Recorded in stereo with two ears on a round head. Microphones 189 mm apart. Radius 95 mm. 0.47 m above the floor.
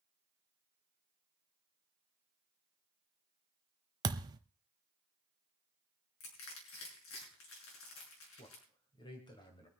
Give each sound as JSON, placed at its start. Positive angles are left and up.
{"t": 4.0, "sound": "a thud", "side_deg": -20, "distance_m": 1.0}
{"t": 6.2, "sound": "crushing", "side_deg": 75, "distance_m": 6.5}
{"t": 8.4, "sound": "a man speaking", "side_deg": 25, "distance_m": 3.0}